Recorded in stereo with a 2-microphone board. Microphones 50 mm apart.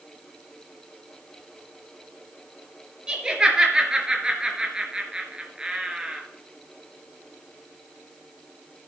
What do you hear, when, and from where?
3.1 s laughter: 15° right (ahead or behind), 3.5 m